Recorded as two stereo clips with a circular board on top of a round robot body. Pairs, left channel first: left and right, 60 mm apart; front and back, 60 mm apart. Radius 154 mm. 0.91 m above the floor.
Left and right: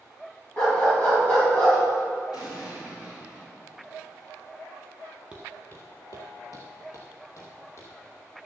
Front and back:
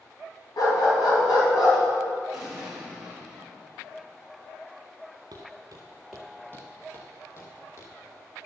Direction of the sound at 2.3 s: 95° left.